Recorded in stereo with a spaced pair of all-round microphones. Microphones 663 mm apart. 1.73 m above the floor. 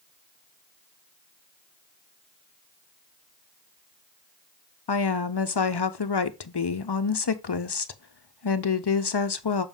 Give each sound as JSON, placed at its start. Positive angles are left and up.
{"t": 4.9, "sound": "a woman speaking", "side_deg": 40, "distance_m": 0.6}